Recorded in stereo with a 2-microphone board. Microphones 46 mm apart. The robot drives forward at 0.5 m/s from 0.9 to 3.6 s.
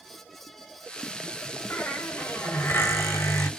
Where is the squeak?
50° left (ahead or behind), 1.6 m; by 3.5 s 85° left, 1.2 m.